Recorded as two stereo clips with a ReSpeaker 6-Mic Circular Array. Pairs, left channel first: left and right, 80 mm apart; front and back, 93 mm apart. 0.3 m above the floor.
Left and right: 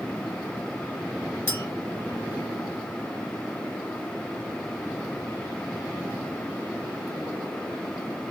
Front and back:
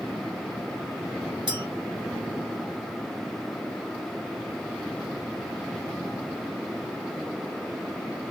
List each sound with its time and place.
1.5 s a clink: 150° left, 3 m